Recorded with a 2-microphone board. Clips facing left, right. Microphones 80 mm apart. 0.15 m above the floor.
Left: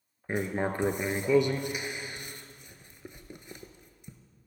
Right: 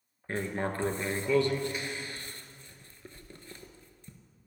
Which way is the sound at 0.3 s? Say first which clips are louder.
Left 3 dB; 15° left (ahead or behind).